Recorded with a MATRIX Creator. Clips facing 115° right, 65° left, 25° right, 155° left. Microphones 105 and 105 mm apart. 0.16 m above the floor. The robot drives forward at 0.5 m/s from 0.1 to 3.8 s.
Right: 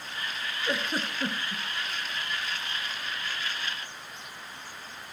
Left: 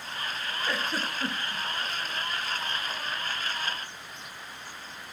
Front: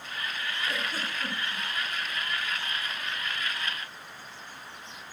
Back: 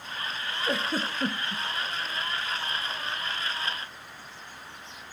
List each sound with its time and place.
0.7 s a giggle: straight behind, 0.8 m